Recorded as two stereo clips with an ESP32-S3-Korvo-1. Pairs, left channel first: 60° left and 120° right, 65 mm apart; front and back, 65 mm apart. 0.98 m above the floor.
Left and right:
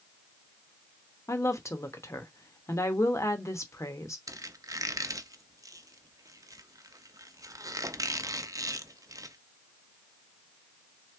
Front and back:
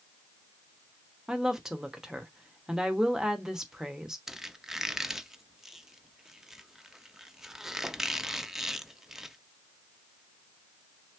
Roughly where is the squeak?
Right.